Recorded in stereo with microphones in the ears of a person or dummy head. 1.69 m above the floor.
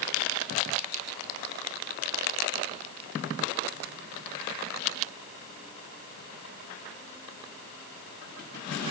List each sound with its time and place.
Only background noise.